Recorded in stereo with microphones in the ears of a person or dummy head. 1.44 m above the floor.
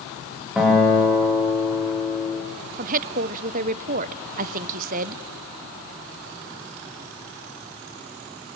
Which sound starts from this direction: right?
A woman speaking, at 2.8 s.